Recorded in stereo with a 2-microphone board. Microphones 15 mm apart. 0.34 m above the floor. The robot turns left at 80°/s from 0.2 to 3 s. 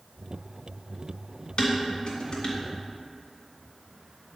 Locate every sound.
1.6 s dishes clattering: 60° left (ahead or behind), 2 m; by 2.6 s 35° left (ahead or behind), 2 m